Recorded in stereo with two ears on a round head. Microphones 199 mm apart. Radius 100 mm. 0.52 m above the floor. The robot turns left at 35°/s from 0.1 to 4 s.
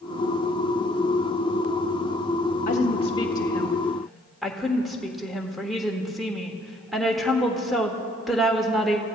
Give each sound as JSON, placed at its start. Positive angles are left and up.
{"t": 2.7, "sound": "a woman speaking", "azimuth_deg": 45, "distance_m": 1.3}